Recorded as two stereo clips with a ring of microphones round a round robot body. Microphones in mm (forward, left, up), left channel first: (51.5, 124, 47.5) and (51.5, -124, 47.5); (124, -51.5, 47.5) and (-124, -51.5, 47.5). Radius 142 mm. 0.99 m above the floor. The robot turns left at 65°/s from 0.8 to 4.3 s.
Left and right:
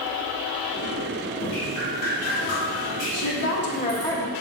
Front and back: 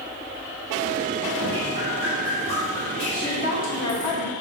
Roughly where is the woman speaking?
Left.